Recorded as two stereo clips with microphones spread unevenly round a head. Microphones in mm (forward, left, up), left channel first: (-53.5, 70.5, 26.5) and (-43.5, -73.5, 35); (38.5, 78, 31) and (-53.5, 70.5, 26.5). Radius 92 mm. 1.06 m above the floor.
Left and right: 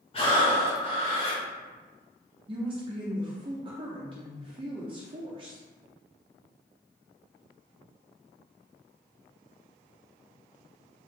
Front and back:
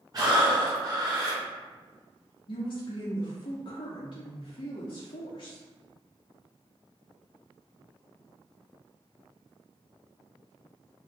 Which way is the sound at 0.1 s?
140° left.